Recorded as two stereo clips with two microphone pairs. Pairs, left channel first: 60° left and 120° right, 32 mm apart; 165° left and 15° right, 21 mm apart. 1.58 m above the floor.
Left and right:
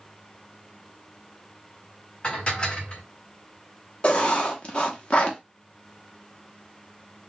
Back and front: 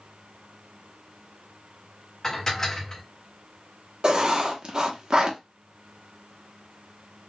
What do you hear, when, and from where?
2.2 s dishes clattering: 110° left, 1.1 m
4.0 s writing: 15° left, 0.8 m